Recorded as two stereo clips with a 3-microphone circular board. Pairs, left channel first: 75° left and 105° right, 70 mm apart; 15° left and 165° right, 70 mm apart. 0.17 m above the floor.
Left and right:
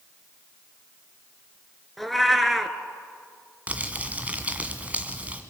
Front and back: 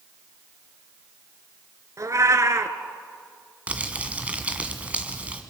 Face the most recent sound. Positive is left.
turn(degrees=-130)